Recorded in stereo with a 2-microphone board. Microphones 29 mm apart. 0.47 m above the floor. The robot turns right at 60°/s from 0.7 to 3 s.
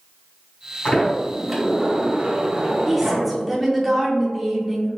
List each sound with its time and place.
0.8 s a sliding door: 145° left, 1.9 m; by 3.3 s 85° right, 1.9 m
2.9 s a woman speaking: centre (ahead or behind), 0.7 m